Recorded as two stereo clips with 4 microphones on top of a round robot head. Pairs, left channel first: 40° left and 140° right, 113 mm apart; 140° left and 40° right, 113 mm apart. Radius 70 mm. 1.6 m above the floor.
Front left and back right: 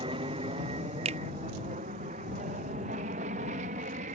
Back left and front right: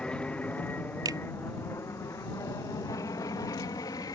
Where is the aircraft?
140° right; by 4.2 s 160° right.